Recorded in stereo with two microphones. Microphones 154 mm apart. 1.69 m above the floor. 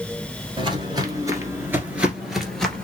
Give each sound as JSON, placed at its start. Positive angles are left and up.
{"t": 0.6, "sound": "footsteps", "side_deg": -30, "distance_m": 1.9}